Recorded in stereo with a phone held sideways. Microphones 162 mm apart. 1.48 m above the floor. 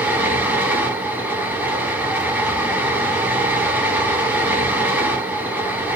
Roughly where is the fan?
Centre.